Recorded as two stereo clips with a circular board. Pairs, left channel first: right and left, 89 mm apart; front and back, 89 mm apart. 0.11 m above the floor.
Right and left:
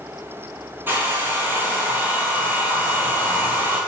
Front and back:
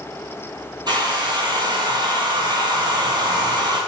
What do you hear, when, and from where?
0.9 s a hair dryer: 155° left, 1.2 m